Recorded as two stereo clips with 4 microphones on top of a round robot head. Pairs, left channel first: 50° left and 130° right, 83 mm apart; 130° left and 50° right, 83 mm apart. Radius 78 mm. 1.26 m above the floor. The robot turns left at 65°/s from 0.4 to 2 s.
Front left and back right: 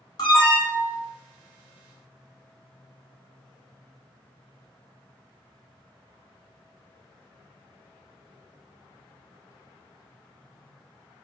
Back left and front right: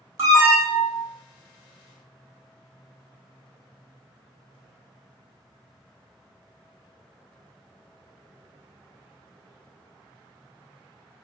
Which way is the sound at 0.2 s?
5° left.